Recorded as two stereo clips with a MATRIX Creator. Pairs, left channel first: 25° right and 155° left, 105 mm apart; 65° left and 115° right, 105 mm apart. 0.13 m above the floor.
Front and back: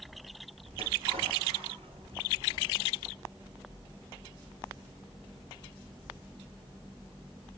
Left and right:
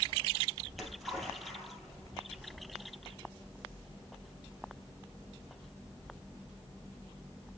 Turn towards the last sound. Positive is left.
turn(degrees=155)